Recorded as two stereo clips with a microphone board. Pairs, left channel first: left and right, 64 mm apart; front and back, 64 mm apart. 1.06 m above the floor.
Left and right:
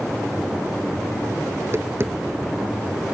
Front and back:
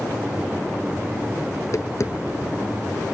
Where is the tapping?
40° right.